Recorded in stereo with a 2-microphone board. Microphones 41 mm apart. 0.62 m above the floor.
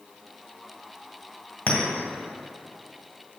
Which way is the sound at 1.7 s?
35° left (ahead or behind).